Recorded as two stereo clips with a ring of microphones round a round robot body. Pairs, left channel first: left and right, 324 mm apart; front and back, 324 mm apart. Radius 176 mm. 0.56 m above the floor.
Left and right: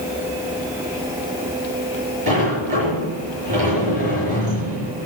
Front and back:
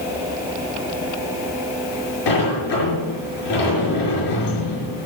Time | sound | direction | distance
2.3 | a sliding door | 20° right | 5 m